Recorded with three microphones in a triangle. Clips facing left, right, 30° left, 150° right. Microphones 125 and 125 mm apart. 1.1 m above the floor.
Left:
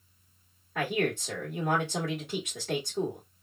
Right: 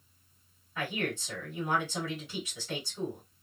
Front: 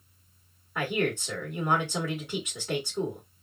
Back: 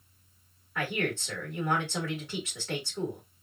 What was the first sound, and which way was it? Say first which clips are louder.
A man speaking: left 5 dB, front 3 dB; 105° left.